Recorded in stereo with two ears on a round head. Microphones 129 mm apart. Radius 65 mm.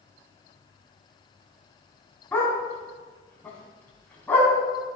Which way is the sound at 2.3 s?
15° left (ahead or behind).